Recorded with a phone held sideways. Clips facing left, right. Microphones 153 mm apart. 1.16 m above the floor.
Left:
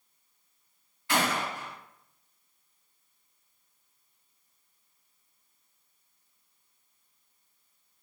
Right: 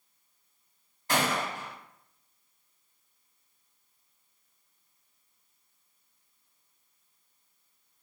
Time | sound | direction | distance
1.1 | a gunshot | 40° right (ahead or behind) | 1.1 m